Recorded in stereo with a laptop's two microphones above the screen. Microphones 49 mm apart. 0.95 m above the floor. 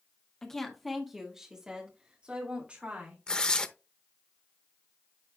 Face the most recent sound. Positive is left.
turn(degrees=20)  # may be behind; listen again after turning